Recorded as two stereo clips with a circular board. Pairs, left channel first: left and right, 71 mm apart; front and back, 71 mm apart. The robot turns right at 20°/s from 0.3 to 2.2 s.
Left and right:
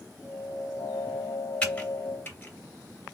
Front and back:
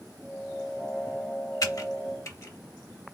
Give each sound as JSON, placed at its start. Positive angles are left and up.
{"t": 1.6, "sound": "typing on a keyboard", "azimuth_deg": 25, "distance_m": 2.5}